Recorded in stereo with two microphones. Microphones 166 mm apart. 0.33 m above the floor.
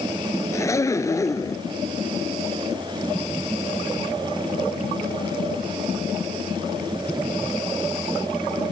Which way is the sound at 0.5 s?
20° left (ahead or behind).